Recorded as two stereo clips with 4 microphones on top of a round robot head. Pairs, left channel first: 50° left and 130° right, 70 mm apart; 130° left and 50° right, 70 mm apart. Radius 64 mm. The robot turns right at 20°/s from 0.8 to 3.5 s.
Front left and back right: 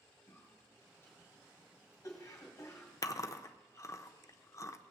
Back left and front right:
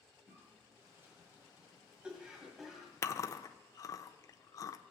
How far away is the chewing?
About 0.5 m.